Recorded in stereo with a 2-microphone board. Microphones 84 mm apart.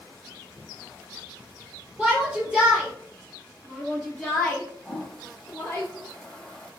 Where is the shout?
15° right (ahead or behind), 4 m; by 5.8 s 20° left (ahead or behind), 2.5 m.